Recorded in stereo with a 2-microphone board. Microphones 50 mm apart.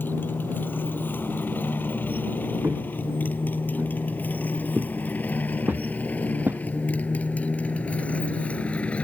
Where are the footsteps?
50° right (ahead or behind); by 6.6 s 40° right (ahead or behind).